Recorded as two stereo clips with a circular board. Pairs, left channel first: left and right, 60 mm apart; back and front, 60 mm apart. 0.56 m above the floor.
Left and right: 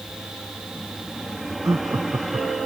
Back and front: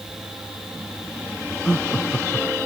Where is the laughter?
110° right.